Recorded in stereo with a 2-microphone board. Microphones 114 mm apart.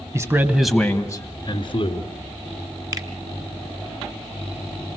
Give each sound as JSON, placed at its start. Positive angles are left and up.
{"t": 0.1, "sound": "a man speaking", "side_deg": -30, "distance_m": 1.3}
{"t": 2.9, "sound": "a finger snap", "side_deg": -30, "distance_m": 1.6}